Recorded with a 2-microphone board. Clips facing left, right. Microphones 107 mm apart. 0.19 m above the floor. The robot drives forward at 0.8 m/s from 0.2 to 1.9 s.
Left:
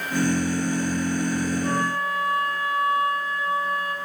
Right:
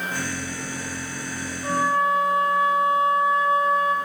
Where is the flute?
20° right (ahead or behind), 4.5 m.